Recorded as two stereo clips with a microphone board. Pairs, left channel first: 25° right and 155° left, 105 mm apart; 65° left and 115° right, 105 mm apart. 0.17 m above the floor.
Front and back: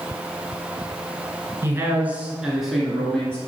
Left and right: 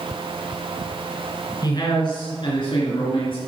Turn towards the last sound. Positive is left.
turn(degrees=55)